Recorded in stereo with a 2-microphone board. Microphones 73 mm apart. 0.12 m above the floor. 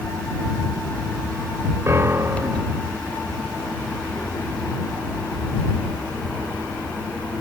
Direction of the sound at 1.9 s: 35° right (ahead or behind).